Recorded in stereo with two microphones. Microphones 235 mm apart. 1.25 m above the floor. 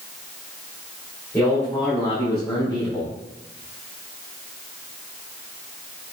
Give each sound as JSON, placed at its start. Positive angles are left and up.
{"t": 1.3, "sound": "a man speaking", "side_deg": 10, "distance_m": 4.0}